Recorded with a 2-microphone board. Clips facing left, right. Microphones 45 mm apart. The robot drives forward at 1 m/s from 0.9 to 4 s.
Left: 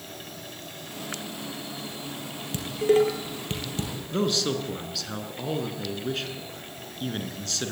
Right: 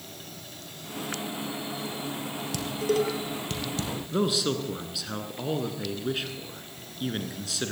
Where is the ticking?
No ticking in this recording.